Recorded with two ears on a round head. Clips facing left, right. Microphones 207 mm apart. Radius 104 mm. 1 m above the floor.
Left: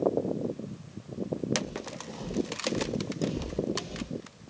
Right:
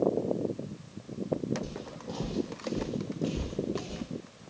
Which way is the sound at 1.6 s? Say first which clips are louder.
Left 1 dB; 55° right (ahead or behind).